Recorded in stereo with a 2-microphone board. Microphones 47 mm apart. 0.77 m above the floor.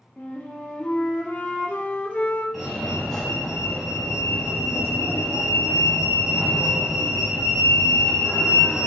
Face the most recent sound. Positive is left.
turn(degrees=5)  # may be behind; listen again after turning